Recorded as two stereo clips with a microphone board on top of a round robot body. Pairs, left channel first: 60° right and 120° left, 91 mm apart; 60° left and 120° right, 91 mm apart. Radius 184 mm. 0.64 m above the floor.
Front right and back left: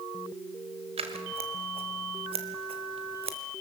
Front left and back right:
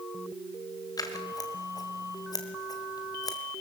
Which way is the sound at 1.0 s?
110° left.